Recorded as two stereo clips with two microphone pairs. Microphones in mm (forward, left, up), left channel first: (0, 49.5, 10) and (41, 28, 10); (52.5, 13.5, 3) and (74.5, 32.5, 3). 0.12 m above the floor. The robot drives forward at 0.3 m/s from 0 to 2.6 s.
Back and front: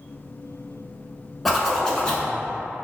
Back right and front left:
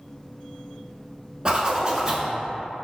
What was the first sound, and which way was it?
A zipper, 65° left.